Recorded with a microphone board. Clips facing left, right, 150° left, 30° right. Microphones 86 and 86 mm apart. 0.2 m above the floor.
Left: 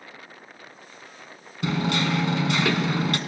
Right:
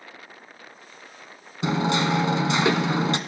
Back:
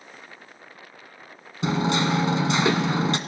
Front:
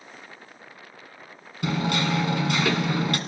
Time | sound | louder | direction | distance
1.6 | hammering | right 2 dB, back 2 dB | 150° right | 1.4 m